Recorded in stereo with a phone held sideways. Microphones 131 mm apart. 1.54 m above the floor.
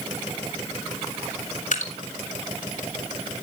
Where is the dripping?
75° left (ahead or behind), 3 m.